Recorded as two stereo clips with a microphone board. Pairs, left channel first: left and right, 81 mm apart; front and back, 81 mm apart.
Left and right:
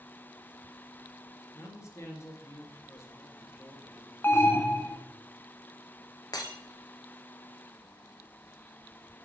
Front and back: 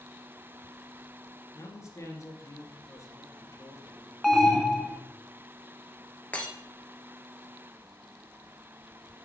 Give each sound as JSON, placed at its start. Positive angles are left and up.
{"t": 1.5, "sound": "a man speaking", "azimuth_deg": 40, "distance_m": 2.0}
{"t": 4.2, "sound": "an alarm", "azimuth_deg": 85, "distance_m": 0.9}
{"t": 6.3, "sound": "breaking glass", "azimuth_deg": 70, "distance_m": 1.5}